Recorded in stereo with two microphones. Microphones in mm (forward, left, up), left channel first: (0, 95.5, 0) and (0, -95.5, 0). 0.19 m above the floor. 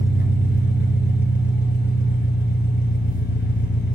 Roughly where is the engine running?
Left.